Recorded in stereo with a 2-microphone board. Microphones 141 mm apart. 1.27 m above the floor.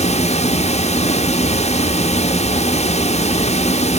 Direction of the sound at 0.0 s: 50° left (ahead or behind).